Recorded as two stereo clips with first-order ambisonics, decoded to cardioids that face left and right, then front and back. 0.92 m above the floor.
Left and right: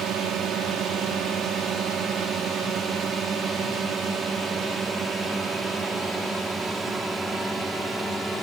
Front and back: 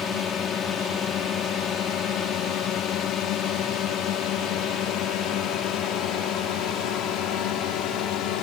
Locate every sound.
0.0 s a drone: 55° right; by 8.4 s 10° right